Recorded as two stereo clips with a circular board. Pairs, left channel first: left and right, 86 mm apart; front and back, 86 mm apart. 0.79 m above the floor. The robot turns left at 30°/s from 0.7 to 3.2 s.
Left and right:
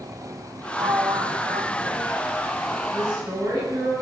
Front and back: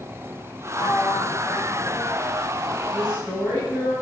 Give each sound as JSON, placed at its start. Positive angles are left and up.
{"t": 0.8, "sound": "a sliding door", "azimuth_deg": -40, "distance_m": 0.6}
{"t": 2.9, "sound": "a woman speaking", "azimuth_deg": -115, "distance_m": 5.5}